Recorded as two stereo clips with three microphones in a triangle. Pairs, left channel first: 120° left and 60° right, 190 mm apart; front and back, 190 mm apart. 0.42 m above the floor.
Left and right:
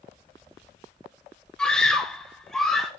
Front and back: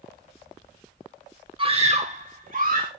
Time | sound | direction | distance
1.6 | a scream | 160° right | 1.3 m